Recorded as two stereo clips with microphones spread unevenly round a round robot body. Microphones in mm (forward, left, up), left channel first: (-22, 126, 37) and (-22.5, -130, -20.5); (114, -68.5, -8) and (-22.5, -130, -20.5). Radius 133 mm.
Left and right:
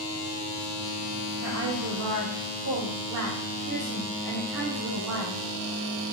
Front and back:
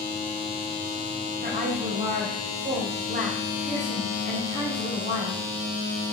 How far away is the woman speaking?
About 5 m.